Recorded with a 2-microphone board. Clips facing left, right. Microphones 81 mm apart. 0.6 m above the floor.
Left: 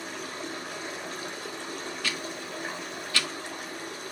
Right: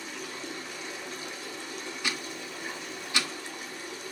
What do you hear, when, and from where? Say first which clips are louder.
0.0 s running water: left 3 dB; 60° left (ahead or behind), 2 m
2.0 s ticking: right 1 dB; 20° right (ahead or behind), 1.3 m